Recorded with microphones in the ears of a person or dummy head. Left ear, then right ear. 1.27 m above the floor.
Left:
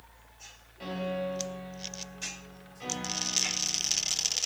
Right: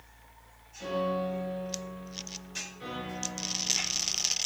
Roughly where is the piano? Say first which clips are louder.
Right 3 dB; left.